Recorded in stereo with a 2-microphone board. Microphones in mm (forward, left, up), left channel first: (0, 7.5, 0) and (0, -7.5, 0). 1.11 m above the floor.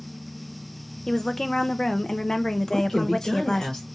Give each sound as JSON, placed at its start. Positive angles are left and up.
{"t": 1.1, "sound": "a woman speaking", "side_deg": 40, "distance_m": 0.6}
{"t": 2.7, "sound": "a woman speaking", "side_deg": 70, "distance_m": 3.0}